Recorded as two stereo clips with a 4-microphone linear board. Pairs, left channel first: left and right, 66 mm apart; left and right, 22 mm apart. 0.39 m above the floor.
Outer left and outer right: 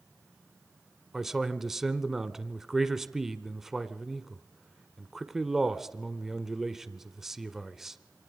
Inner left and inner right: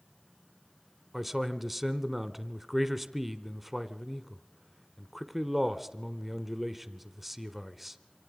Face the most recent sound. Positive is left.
turn(degrees=-5)  # may be behind; listen again after turning